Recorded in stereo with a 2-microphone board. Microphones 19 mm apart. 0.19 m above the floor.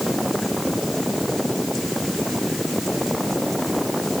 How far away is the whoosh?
No whoosh in this recording.